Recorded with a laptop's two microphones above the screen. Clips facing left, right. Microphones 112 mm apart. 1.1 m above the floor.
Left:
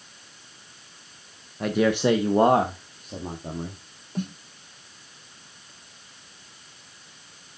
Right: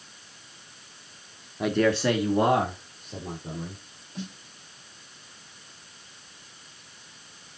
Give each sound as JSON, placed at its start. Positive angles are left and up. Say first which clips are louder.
{"t": 1.6, "sound": "a man speaking", "louder": "left 1 dB", "side_deg": -5, "distance_m": 0.8}
{"t": 4.2, "sound": "a snare drum", "louder": "left 7 dB", "side_deg": 45, "distance_m": 0.8}